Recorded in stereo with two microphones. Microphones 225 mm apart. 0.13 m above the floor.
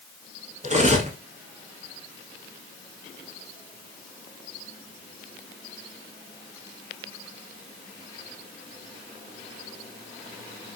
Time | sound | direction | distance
0.6 | cutlery clinking | 35° right (ahead or behind) | 0.8 m